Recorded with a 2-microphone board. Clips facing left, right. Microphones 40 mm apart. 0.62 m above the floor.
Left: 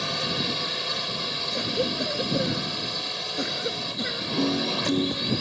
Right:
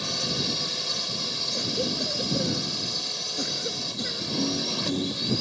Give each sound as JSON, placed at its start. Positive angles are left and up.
{"t": 0.0, "sound": "a drone", "side_deg": 30}
{"t": 1.5, "sound": "a cough", "side_deg": 25}
{"t": 4.4, "sound": "a piano", "side_deg": 60}